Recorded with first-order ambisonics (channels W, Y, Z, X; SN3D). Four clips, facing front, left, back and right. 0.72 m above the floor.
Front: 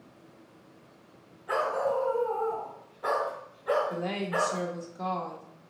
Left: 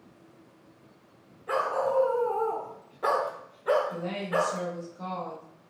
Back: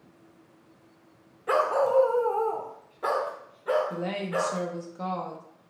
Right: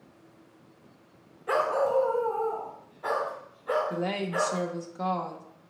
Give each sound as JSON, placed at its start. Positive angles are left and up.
{"t": 1.5, "sound": "a dog barking", "azimuth_deg": -160, "distance_m": 0.8}
{"t": 3.9, "sound": "a woman speaking", "azimuth_deg": -105, "distance_m": 0.5}